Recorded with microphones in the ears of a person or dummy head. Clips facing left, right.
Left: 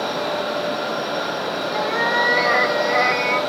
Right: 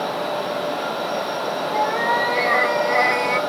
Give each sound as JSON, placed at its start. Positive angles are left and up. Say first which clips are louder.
{"t": 1.7, "sound": "a cat meowing", "louder": "right 1 dB", "side_deg": 30, "distance_m": 2.5}